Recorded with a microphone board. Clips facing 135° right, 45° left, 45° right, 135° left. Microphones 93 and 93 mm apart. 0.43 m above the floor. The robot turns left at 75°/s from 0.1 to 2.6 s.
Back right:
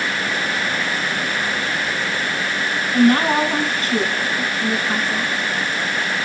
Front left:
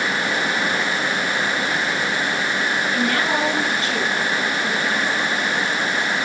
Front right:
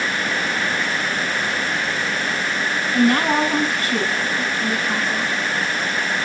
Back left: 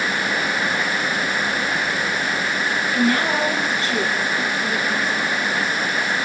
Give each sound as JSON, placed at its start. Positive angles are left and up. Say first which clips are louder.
{"t": 2.9, "sound": "a woman speaking", "louder": "back right 10 dB, front right 4 dB", "azimuth_deg": -90, "distance_m": 4.5}